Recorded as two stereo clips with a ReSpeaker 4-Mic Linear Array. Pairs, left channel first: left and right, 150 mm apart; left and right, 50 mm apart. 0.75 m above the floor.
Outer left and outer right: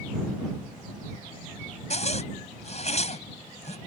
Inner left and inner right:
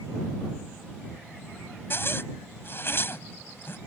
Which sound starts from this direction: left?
A zipper, at 1.9 s.